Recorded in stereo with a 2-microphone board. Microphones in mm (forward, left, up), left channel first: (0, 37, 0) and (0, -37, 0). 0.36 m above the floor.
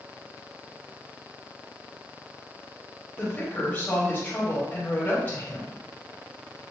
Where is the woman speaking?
25° left (ahead or behind), 2 m.